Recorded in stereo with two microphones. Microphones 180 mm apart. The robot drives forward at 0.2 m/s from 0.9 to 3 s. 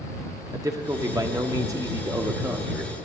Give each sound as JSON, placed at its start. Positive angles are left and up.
{"t": 0.5, "sound": "a man speaking", "side_deg": -20, "distance_m": 0.7}